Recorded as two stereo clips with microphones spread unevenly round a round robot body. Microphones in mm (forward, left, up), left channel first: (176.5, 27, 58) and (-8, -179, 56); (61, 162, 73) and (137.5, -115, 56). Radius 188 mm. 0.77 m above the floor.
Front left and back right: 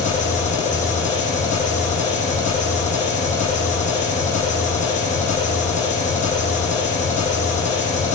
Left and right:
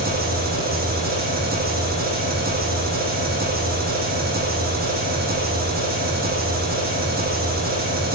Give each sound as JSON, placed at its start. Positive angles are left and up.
{"t": 0.0, "sound": "an engine running", "azimuth_deg": -15, "distance_m": 10.0}